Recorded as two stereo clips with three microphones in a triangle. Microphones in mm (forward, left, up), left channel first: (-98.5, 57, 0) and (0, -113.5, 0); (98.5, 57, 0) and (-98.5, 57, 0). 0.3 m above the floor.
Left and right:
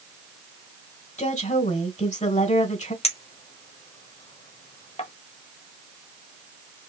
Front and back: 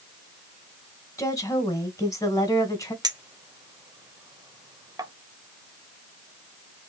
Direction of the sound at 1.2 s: 70° left.